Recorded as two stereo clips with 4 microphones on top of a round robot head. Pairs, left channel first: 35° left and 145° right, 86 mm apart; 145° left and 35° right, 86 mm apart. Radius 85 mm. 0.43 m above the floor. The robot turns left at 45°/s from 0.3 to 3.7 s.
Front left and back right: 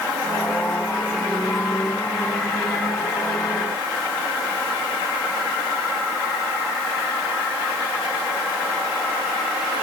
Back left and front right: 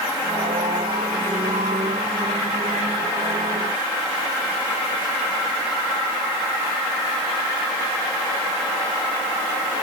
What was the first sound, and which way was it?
Only background noise.